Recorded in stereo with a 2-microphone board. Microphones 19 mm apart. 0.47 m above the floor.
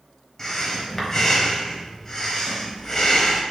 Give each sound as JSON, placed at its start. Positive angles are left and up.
{"t": 0.4, "sound": "breathing", "side_deg": 25, "distance_m": 1.4}